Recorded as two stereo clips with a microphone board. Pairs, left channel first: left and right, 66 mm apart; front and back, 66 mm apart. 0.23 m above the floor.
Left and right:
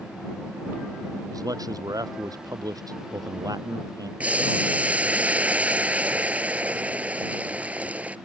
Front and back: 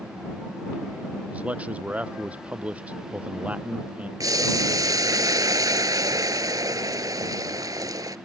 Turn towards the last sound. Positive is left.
turn(degrees=-155)